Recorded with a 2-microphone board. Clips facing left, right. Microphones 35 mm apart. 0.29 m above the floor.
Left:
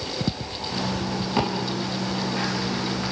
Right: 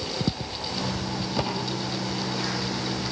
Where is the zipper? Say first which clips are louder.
Left 4 dB; 40° left (ahead or behind), 9 m.